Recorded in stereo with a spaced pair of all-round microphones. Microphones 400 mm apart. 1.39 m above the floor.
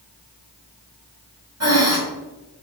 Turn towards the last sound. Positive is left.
turn(degrees=-40)  # may be behind; listen again after turning